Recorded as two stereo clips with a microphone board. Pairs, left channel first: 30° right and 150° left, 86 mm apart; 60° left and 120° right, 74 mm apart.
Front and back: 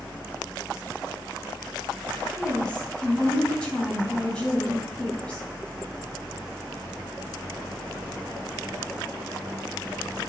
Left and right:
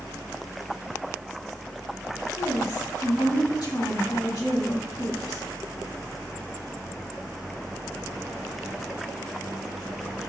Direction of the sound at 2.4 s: 45° left.